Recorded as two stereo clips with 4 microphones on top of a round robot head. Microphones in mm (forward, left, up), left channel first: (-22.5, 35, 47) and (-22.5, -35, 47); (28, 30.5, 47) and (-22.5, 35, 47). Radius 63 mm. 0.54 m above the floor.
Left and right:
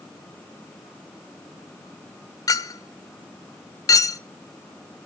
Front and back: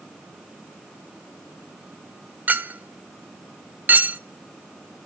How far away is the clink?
About 1.3 m.